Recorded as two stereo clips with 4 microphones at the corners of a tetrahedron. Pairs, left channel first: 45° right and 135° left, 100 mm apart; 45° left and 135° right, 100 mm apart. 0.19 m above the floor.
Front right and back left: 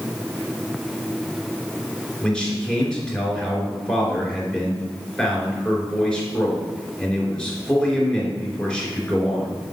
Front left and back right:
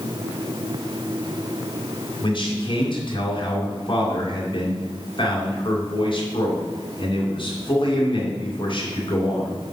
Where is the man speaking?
35° left, 2.5 m.